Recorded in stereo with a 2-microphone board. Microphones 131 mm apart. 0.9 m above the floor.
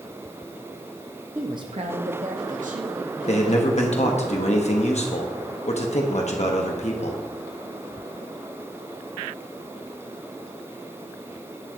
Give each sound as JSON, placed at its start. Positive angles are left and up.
{"t": 1.4, "sound": "a woman speaking", "side_deg": -15, "distance_m": 0.6}
{"t": 3.3, "sound": "a man speaking", "side_deg": 60, "distance_m": 1.0}